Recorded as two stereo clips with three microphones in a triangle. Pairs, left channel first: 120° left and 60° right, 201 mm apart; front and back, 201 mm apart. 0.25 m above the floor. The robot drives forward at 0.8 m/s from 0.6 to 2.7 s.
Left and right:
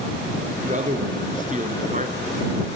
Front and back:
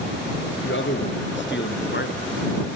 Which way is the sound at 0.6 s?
10° right.